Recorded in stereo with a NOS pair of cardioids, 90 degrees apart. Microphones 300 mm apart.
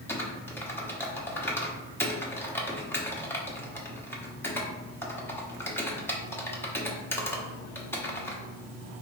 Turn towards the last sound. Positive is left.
turn(degrees=10)